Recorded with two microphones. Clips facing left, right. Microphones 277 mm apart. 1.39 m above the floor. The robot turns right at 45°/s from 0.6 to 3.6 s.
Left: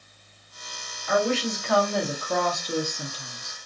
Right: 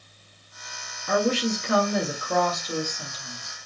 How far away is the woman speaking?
About 1.0 m.